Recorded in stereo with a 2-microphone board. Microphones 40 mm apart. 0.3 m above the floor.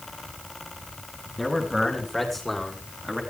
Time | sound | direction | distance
1.4 | a man speaking | 5° left (ahead or behind) | 4 m